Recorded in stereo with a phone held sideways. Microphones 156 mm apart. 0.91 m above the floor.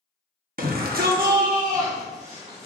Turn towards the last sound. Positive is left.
turn(degrees=-40)  # may be behind; listen again after turning